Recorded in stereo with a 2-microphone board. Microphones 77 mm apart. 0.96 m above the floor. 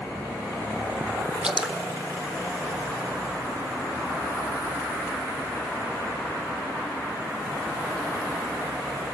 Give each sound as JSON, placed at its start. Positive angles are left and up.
{"t": 1.4, "sound": "dripping", "side_deg": -10, "distance_m": 1.1}